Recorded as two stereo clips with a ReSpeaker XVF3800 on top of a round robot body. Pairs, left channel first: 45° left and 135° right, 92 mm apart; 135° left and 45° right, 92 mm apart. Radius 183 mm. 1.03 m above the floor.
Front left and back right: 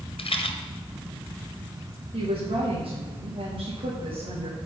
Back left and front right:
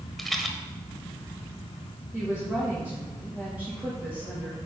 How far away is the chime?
I don't hear a chime.